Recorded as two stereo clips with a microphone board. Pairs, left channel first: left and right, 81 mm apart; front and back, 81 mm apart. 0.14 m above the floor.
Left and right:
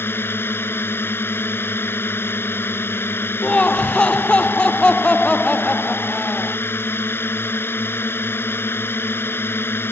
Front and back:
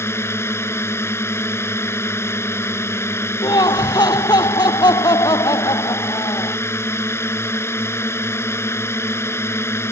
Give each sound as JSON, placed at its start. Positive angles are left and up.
{"t": 0.0, "sound": "a drone", "azimuth_deg": 40}
{"t": 3.4, "sound": "laughter", "azimuth_deg": 15}